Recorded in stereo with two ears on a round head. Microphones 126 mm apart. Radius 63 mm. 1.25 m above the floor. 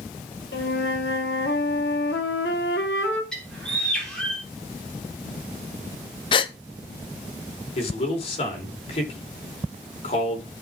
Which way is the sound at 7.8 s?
45° left (ahead or behind).